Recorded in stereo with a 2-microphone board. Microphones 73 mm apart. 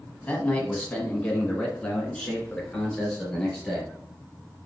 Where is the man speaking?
20° left (ahead or behind), 1.2 m; by 3.9 s 10° left (ahead or behind), 3.5 m.